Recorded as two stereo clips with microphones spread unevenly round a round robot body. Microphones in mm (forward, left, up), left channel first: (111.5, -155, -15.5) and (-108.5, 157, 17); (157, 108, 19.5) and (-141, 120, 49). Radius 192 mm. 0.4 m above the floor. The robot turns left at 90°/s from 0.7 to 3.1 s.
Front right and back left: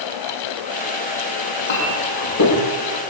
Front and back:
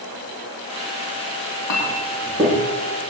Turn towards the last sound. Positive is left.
turn(degrees=-165)